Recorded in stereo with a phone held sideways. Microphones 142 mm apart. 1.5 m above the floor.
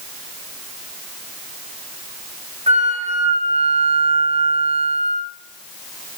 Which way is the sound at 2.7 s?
50° right (ahead or behind).